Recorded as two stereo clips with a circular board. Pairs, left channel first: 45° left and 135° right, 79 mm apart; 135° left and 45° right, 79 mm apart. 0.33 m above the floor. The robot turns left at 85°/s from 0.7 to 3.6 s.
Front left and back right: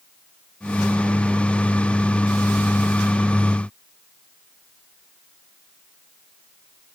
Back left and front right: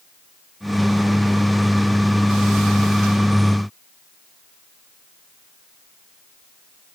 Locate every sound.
Only background noise.